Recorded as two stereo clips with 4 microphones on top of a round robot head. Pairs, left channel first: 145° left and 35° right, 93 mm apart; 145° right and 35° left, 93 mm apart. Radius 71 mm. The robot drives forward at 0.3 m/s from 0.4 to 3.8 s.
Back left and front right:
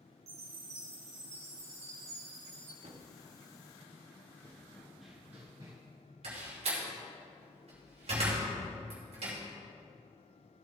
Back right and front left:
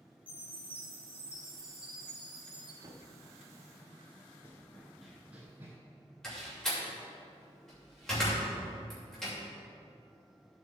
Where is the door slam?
60° right, 3 m.